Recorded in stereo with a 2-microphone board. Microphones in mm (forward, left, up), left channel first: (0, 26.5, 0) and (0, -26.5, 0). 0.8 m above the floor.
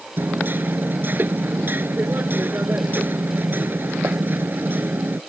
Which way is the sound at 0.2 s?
40° right (ahead or behind).